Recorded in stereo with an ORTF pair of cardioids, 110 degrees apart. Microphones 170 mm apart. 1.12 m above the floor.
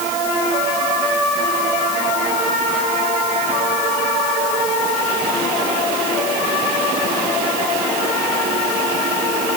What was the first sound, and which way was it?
Only background noise.